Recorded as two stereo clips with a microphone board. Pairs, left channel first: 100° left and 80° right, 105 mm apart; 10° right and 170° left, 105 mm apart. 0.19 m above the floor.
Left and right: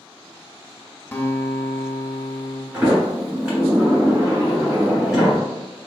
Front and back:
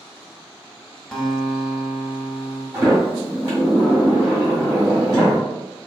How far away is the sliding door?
About 2.0 m.